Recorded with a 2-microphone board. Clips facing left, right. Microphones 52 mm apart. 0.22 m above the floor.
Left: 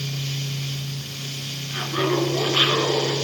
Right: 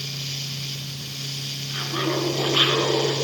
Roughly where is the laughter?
Centre.